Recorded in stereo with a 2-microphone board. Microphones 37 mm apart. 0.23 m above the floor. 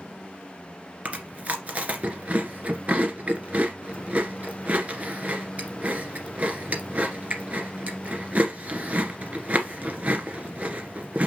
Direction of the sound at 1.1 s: 40° right (ahead or behind).